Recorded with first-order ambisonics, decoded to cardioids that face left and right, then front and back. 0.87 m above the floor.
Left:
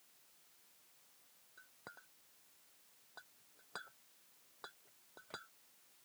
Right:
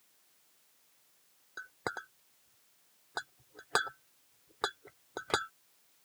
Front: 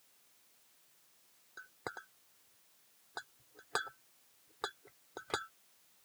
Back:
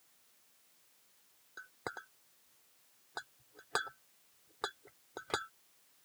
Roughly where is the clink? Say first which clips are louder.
Right 18 dB, back 1 dB; right.